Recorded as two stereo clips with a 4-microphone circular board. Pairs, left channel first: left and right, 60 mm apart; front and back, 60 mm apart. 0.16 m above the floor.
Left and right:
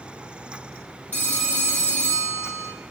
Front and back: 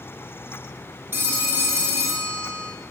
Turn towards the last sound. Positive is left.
turn(degrees=140)